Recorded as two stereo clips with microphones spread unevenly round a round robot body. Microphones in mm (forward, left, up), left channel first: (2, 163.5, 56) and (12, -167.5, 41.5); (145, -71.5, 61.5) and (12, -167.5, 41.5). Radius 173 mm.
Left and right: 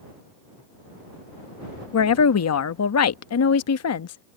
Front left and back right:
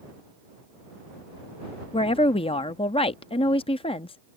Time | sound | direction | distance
1.9 | a woman speaking | 85° left | ?